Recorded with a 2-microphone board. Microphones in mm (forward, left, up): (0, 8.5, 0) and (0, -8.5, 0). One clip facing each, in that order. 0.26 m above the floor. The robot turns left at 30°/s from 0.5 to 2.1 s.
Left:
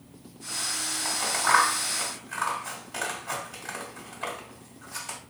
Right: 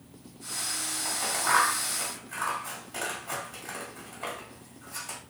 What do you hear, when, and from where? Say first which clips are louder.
1.1 s scissors: left 4 dB; 15° left (ahead or behind), 1.3 m